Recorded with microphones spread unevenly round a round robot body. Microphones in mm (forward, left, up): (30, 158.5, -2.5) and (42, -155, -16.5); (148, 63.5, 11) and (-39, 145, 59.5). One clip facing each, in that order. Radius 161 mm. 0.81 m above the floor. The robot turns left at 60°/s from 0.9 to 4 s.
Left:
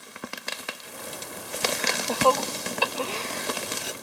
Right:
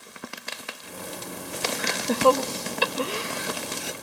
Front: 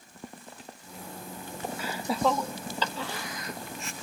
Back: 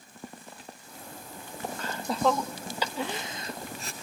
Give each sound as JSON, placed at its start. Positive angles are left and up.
{"t": 1.8, "sound": "laughter", "azimuth_deg": -45, "distance_m": 0.6}